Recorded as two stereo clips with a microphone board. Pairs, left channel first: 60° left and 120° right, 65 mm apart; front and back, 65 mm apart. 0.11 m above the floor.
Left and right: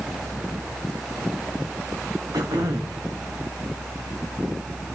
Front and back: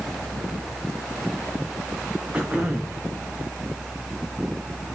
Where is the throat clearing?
105° right, 1.5 m.